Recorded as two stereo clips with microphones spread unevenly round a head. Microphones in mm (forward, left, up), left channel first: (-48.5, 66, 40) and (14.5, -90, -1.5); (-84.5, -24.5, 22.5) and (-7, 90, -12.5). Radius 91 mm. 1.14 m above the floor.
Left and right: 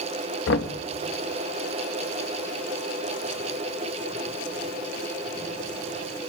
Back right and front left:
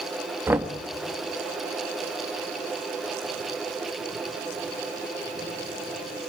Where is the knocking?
130° left, 1.5 m.